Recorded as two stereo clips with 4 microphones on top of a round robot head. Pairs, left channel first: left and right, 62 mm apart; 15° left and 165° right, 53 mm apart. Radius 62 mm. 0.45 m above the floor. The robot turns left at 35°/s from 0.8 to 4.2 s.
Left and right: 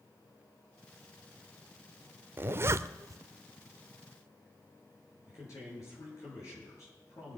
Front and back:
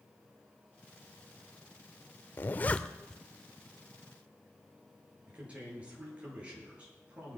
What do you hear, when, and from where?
2.4 s a zipper: 40° right, 0.5 m; by 3.2 s 65° right, 0.5 m
5.3 s a man speaking: 130° left, 8 m